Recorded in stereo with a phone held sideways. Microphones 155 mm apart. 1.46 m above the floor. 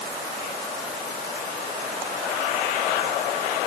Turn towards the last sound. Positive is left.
No sound to turn to.